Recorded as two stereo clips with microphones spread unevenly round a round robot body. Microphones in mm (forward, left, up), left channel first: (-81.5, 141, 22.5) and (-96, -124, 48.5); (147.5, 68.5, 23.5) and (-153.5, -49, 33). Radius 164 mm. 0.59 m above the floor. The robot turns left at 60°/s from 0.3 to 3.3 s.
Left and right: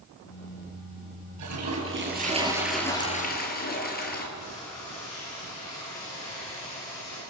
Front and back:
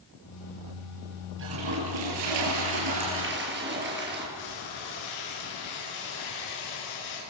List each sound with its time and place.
1.4 s a toilet flushing: 105° right, 7 m; by 4.2 s 140° left, 7 m
4.3 s frying: 5° left, 10 m